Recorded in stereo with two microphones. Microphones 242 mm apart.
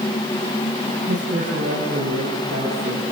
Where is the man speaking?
45° right (ahead or behind), 8.5 m; by 3.0 s 60° right (ahead or behind), 9 m.